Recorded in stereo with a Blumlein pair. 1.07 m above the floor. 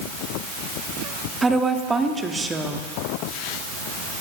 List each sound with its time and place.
1.4 s a woman speaking: 10° right, 1.7 m